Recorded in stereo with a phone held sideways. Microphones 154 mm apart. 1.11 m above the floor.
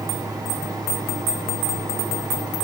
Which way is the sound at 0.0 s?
25° right (ahead or behind).